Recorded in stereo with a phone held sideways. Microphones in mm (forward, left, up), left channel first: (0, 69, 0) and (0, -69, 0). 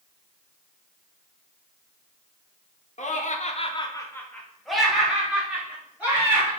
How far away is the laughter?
About 0.7 m.